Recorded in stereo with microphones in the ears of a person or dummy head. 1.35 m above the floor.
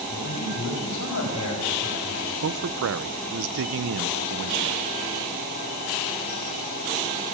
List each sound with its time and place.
0.1 s a man speaking: 85° left, 10 m
2.4 s a man speaking: 75° right (ahead or behind), 0.7 m